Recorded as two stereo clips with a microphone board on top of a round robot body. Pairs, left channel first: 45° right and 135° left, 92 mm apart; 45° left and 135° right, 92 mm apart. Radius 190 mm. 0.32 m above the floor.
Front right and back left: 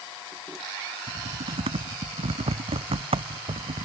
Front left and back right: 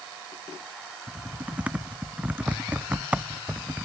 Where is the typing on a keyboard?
150° left.